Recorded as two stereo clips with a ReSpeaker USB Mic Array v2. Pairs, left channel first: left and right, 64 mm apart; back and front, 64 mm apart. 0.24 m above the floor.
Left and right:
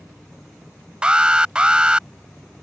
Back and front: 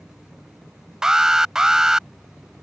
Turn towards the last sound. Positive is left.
turn(degrees=-60)